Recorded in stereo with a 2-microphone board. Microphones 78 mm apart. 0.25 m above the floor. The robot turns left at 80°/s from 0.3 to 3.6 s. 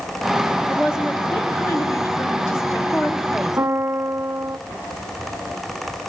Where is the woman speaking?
145° right, 1.9 m; by 3.6 s 15° right, 1.9 m.